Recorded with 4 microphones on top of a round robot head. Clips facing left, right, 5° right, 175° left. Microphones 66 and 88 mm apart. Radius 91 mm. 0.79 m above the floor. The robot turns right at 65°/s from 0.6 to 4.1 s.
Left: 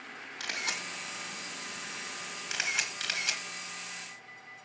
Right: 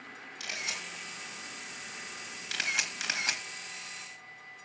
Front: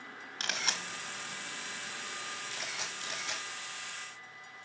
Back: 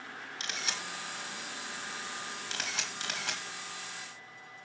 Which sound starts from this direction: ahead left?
A camera shutter, at 0.4 s.